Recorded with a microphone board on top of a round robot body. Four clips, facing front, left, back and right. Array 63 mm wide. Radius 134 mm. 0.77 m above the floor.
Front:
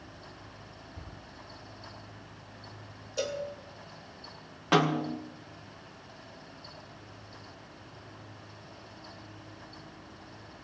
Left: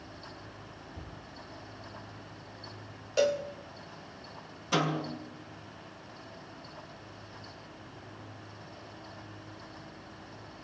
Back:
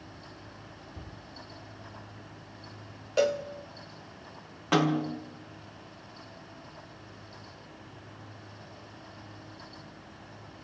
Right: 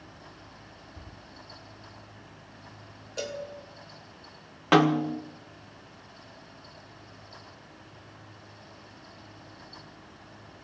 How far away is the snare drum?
About 1.2 m.